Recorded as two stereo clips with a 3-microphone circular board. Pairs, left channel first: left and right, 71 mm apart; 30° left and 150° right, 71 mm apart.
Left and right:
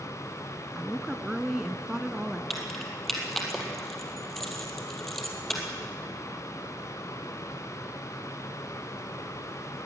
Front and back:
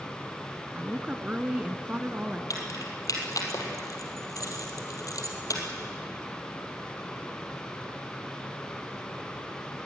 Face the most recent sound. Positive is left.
turn(degrees=5)